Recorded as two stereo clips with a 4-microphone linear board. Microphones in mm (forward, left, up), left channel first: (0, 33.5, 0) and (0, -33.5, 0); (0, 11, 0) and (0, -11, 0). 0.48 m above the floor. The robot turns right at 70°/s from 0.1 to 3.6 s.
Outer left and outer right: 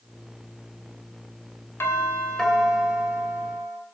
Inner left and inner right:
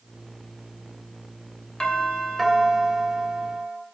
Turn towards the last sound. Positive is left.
turn(degrees=-105)